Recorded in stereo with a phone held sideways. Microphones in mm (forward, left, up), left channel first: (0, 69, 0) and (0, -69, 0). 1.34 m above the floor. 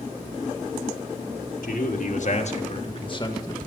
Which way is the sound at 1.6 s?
70° left (ahead or behind).